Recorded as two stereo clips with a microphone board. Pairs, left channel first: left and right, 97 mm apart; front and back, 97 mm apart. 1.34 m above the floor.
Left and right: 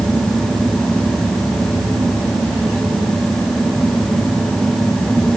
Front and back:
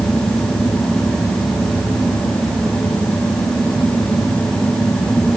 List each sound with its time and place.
Only background noise.